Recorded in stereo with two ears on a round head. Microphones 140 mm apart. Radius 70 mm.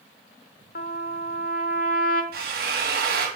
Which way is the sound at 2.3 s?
70° right (ahead or behind).